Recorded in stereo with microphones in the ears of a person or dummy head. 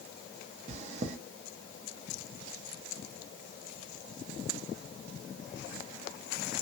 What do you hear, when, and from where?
0.7 s chewing: 40° right (ahead or behind), 0.5 m